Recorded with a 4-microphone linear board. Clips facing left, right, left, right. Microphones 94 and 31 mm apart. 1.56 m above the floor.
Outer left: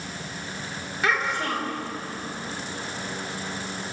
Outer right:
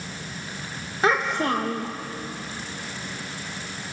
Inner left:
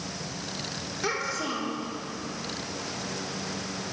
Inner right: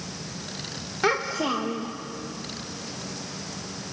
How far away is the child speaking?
About 1.6 m.